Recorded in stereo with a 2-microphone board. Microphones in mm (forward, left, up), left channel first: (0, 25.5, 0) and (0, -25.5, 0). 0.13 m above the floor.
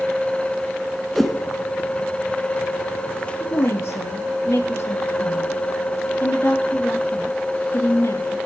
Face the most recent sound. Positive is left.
turn(degrees=65)  # may be behind; listen again after turning